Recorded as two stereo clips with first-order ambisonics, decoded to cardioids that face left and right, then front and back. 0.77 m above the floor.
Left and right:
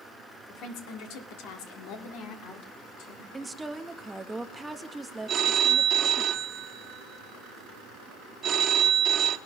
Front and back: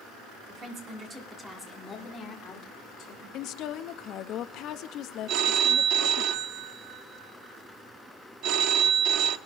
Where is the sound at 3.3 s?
10° right, 0.6 m.